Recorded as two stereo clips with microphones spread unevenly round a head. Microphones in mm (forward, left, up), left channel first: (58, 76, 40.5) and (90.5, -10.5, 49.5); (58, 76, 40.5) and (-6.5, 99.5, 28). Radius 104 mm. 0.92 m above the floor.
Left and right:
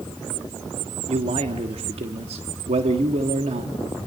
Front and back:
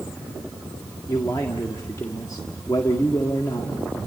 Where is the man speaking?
85° right, 1.5 m.